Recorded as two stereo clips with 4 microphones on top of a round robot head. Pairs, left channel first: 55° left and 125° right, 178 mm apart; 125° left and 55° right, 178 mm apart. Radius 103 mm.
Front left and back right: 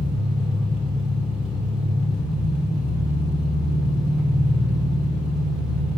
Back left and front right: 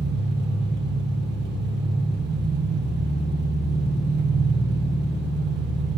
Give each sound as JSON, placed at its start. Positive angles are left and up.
{"t": 0.0, "sound": "an engine running", "azimuth_deg": -40, "distance_m": 2.0}